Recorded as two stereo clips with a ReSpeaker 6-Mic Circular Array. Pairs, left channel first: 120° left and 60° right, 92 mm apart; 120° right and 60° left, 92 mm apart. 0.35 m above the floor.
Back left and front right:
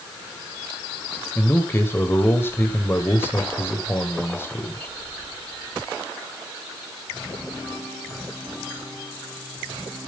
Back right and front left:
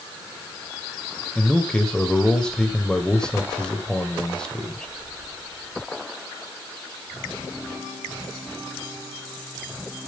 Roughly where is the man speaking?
Behind.